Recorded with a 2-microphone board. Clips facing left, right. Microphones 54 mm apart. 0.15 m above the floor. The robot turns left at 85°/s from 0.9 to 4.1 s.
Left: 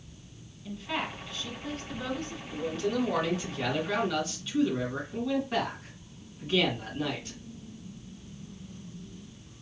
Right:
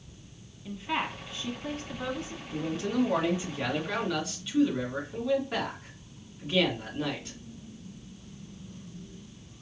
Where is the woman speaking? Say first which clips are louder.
Right 2 dB; 10° right (ahead or behind), 1.2 m.